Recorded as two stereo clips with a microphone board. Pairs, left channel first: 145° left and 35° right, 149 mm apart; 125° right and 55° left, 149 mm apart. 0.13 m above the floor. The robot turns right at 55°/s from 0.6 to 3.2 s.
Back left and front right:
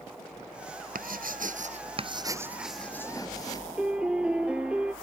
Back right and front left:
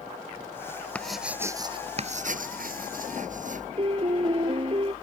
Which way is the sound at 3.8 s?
45° left.